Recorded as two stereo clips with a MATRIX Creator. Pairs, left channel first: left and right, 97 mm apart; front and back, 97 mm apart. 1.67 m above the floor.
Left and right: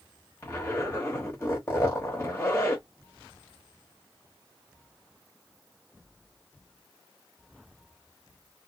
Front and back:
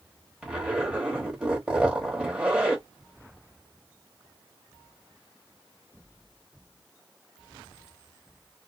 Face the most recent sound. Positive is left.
turn(degrees=115)